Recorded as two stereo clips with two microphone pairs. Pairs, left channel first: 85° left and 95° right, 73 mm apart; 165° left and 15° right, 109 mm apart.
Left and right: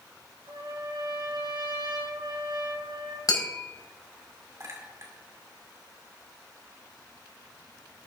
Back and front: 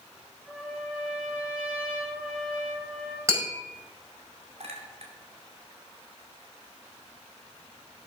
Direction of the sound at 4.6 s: 40° right.